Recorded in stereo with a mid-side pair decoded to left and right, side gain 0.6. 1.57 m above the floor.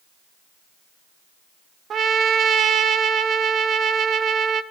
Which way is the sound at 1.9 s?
45° right.